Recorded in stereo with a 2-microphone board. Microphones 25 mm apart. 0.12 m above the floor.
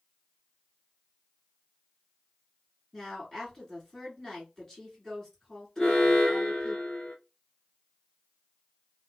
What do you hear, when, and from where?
2.9 s a woman speaking: 20° left (ahead or behind), 1.7 m
5.8 s an alarm: 25° left (ahead or behind), 1.7 m